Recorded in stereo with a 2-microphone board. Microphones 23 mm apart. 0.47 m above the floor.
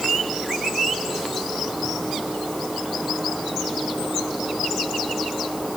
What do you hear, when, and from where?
Only background noise.